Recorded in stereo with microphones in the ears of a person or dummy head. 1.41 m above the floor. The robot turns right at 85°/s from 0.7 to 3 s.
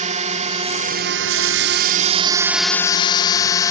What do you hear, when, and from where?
0.0 s a drone: 35° right (ahead or behind); by 3.7 s 15° left (ahead or behind)